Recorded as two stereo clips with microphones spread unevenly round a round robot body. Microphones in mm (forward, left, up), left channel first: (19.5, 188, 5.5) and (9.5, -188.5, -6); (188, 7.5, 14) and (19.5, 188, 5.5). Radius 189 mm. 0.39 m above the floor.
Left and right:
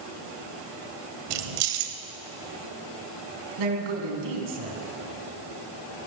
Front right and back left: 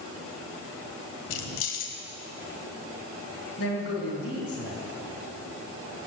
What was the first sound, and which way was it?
Keys jangling, 75° right.